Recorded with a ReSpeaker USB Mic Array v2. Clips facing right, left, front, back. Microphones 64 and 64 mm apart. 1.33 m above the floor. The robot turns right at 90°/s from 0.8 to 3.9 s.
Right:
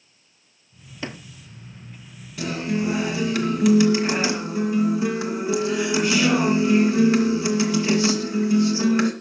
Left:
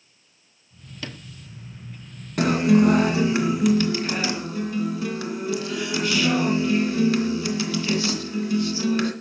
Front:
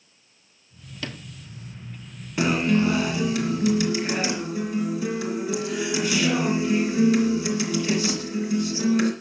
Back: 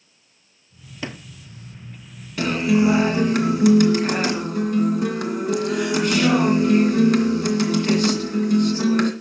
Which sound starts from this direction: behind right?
A sliding door, at 1.0 s.